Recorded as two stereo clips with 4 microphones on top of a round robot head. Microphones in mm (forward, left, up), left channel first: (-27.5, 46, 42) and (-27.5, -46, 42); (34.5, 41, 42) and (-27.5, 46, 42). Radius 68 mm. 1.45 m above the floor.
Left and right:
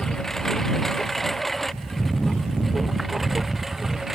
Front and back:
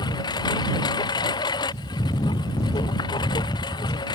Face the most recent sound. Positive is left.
turn(degrees=-5)